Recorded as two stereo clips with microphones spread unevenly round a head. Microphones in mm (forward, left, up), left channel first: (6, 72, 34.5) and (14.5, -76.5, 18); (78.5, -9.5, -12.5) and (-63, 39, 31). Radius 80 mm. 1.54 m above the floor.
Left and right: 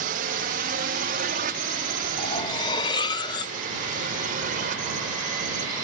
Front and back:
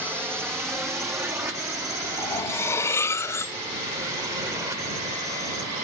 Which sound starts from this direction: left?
Cutlery clinking, at 2.2 s.